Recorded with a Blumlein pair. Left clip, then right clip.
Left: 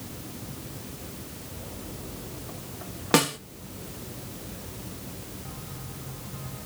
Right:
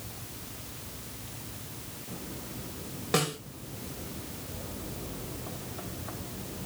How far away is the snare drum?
About 1.0 m.